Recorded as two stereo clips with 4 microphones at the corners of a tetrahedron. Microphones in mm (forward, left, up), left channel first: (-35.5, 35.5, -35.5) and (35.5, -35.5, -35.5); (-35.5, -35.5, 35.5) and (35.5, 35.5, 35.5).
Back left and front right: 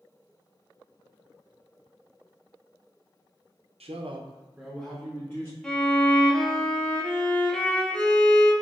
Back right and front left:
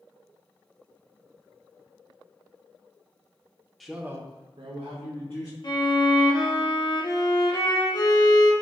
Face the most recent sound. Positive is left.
turn(degrees=-145)